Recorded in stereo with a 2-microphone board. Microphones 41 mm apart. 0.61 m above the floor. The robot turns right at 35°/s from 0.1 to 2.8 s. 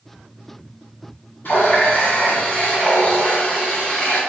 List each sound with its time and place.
1.4 s a running tap: 110° left, 1.7 m; by 4.2 s 155° left, 1.7 m